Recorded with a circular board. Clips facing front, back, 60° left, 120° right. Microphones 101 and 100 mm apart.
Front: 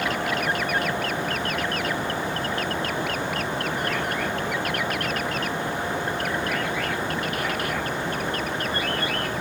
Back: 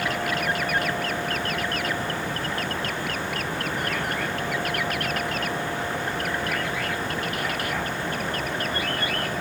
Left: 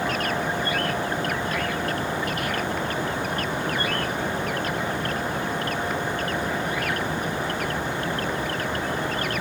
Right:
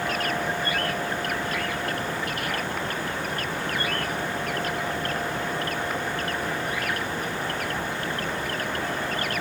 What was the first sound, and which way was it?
Only background noise.